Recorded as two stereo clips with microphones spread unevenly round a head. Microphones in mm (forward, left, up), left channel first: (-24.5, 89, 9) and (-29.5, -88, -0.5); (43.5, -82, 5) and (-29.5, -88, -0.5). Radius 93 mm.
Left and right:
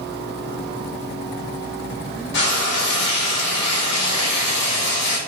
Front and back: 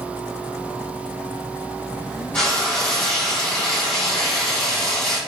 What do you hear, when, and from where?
2.3 s frying: 80° left, 1.3 m